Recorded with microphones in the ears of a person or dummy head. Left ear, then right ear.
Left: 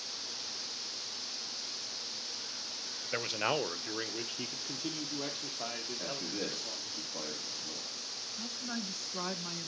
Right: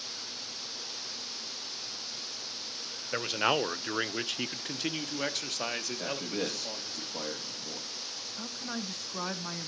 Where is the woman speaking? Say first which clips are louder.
Right 1 dB; 25° right (ahead or behind), 1.5 m.